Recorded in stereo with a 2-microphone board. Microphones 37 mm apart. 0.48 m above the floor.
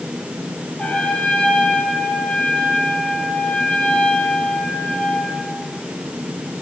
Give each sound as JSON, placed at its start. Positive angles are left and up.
{"t": 0.8, "sound": "a trumpet", "side_deg": 30, "distance_m": 6.0}